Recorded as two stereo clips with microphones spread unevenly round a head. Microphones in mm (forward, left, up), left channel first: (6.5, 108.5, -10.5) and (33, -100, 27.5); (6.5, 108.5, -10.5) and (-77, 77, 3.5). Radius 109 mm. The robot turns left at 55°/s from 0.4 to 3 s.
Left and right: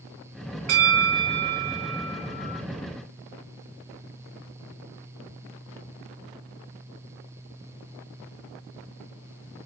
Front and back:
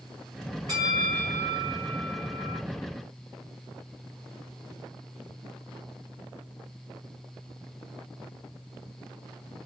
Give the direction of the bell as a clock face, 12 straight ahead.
3 o'clock.